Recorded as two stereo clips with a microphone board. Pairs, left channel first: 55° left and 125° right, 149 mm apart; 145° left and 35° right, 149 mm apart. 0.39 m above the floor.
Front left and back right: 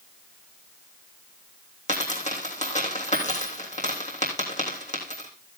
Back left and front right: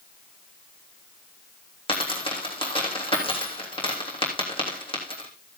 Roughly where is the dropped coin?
Left.